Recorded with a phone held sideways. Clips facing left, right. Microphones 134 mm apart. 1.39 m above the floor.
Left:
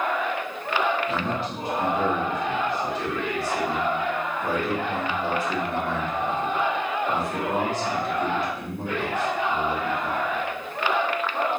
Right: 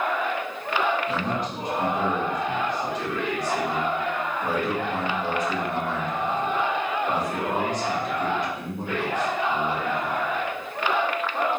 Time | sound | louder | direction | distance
1.1 | a man speaking | even | 20° right (ahead or behind) | 1.5 m